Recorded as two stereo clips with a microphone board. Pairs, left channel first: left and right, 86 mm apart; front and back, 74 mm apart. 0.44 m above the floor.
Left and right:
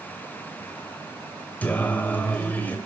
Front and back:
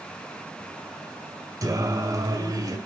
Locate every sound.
1.6 s singing: 160° left, 2 m